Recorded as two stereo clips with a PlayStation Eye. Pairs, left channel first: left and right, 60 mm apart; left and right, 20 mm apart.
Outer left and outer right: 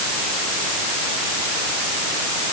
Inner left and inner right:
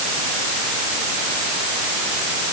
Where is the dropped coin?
No dropped coin in this recording.